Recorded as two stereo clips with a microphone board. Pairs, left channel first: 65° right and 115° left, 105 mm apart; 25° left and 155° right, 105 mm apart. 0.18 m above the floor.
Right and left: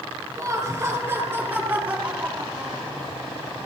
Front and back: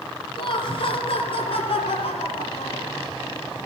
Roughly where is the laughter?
Ahead left.